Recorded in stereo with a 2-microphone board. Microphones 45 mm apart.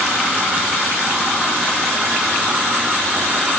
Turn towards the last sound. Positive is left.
No sound to turn to.